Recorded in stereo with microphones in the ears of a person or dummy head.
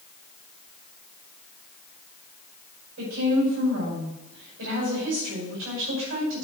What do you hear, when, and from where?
3.0 s a woman speaking: 65° right (ahead or behind), 5 m